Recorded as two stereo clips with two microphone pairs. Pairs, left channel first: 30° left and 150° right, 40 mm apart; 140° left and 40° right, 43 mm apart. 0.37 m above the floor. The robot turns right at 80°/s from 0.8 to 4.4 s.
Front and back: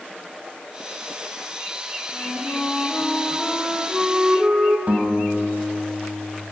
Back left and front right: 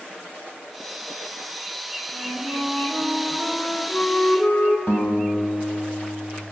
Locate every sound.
2.1 s a flute: 35° right, 1.2 m; by 4.8 s 150° left, 1.2 m
4.9 s a guitar: 155° left, 2 m